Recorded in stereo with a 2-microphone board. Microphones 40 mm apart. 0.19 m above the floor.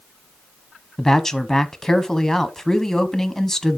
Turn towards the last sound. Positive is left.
turn(degrees=10)  # may be behind; listen again after turning